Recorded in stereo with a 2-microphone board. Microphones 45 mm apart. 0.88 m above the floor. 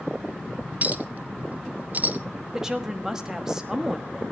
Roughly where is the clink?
Right.